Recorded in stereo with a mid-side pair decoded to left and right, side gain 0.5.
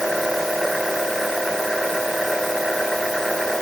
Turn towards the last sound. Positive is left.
turn(degrees=-5)